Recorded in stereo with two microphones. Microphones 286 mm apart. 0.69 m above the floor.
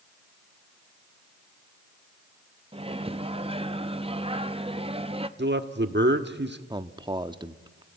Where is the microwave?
20° right (ahead or behind), 0.7 m.